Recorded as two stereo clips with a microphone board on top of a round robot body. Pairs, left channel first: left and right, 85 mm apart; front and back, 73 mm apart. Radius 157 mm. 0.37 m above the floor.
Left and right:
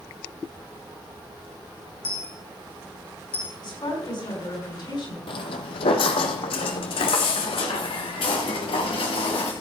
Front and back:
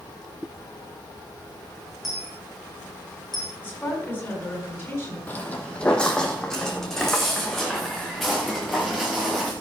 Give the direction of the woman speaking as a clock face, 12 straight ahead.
10 o'clock.